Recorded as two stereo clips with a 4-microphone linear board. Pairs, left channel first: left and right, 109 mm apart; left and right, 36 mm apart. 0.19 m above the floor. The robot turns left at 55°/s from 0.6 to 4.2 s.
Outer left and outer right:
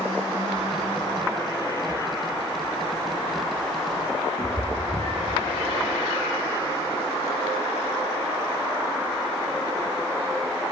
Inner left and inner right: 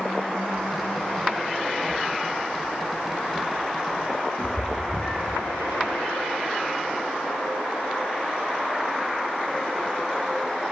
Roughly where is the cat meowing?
Left.